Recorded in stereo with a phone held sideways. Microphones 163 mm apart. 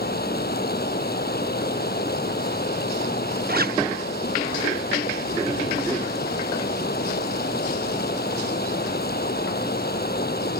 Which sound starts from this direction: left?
Running water, at 0.0 s.